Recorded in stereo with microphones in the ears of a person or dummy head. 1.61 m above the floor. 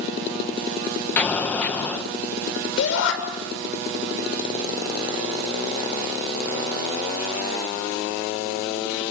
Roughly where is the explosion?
Centre.